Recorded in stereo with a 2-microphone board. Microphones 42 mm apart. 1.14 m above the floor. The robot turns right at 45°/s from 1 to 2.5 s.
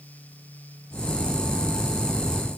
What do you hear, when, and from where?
Only background noise.